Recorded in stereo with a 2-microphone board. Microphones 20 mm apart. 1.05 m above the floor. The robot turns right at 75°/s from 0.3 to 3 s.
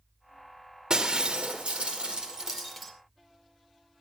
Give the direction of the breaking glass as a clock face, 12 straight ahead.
5 o'clock.